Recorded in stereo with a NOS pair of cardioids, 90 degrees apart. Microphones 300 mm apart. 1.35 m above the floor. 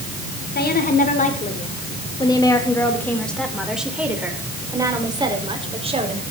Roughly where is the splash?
No splash in this recording.